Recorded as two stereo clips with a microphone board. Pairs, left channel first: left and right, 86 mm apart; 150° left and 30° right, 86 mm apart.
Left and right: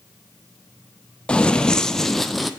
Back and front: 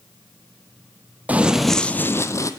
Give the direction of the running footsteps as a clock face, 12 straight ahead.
11 o'clock.